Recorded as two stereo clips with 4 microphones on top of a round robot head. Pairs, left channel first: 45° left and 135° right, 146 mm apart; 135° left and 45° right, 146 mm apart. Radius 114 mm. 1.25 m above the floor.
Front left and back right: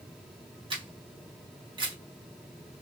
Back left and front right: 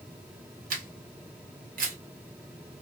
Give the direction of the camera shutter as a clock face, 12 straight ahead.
2 o'clock.